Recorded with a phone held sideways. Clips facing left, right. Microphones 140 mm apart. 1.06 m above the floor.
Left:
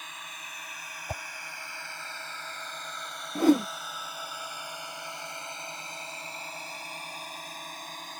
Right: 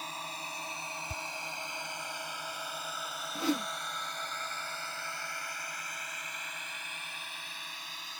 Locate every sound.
0.0 s a drone: 35° right (ahead or behind); by 8.2 s 45° left (ahead or behind)
1.1 s a whoosh: 65° left (ahead or behind)
3.4 s a whoosh: 45° left (ahead or behind)